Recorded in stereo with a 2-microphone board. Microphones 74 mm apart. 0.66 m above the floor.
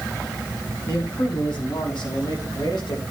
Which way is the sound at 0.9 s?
80° left.